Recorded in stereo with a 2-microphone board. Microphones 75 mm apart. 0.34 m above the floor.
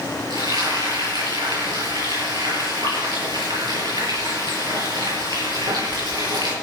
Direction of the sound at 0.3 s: 75° right (ahead or behind).